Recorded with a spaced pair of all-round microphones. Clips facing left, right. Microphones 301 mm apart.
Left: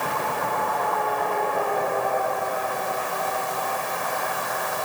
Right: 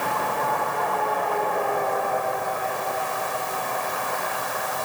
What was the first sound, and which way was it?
Only background noise.